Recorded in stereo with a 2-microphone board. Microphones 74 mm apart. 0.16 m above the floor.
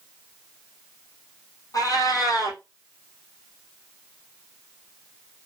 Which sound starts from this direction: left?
A cat meowing, at 1.7 s.